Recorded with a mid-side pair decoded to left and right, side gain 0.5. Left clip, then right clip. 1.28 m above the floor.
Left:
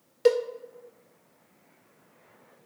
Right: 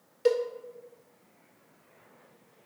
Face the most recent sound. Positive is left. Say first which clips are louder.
# left 3 dB
turn(degrees=40)